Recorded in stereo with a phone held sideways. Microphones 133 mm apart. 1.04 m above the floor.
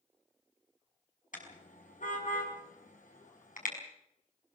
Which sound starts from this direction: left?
A car horn, at 1.3 s.